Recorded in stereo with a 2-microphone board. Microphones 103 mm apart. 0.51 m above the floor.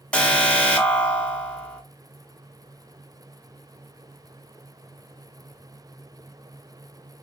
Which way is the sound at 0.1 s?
10° left (ahead or behind).